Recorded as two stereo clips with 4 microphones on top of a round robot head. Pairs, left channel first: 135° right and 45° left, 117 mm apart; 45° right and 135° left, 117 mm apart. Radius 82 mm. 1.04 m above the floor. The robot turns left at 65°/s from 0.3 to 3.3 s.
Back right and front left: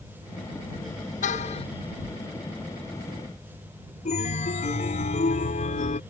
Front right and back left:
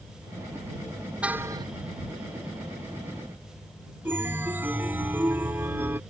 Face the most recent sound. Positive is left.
turn(degrees=-150)